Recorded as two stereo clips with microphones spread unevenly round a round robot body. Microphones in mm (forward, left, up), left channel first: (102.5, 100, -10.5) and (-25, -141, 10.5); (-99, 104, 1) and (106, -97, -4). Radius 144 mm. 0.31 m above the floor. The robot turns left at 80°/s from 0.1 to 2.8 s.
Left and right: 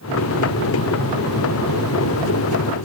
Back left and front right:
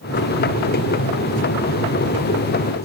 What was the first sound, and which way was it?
Only background noise.